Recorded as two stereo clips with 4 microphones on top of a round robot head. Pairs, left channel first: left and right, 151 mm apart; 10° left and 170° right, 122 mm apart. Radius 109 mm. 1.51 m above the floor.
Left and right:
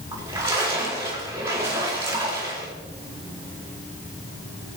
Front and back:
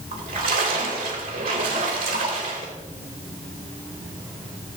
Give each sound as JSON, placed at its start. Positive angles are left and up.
{"t": 0.1, "sound": "a splash", "azimuth_deg": -160, "distance_m": 3.5}